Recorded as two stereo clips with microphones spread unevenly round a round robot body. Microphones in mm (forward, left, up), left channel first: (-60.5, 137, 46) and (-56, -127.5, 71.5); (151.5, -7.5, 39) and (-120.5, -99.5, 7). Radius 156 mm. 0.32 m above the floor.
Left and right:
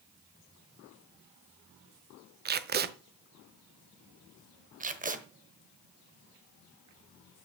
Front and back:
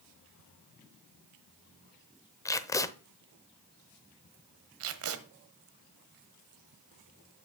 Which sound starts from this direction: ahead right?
Tape being pulled, at 2.5 s.